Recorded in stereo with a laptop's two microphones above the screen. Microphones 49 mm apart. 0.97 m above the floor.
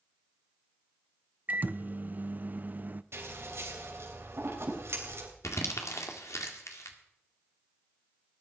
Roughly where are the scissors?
Right.